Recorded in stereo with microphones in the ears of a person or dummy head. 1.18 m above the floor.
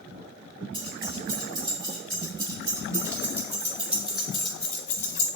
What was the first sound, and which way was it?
Keys jangling, 30° right (ahead or behind).